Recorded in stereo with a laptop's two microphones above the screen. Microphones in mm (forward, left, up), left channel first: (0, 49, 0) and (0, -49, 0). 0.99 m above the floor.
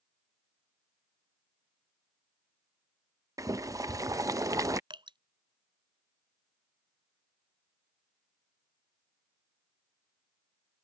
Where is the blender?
I don't hear a blender.